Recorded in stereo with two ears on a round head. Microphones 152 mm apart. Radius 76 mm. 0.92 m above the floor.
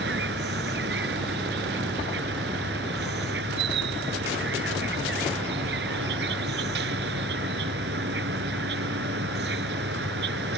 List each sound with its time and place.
0.0 s an insect: 75° right (ahead or behind)